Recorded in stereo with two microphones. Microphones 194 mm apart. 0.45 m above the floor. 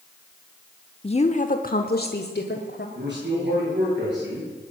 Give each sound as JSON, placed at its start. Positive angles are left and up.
{"t": 1.0, "sound": "a woman speaking", "side_deg": 30, "distance_m": 0.8}
{"t": 3.0, "sound": "a man speaking", "side_deg": -65, "distance_m": 9.0}